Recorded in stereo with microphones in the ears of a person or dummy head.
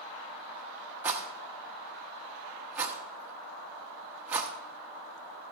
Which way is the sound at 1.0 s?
15° right (ahead or behind).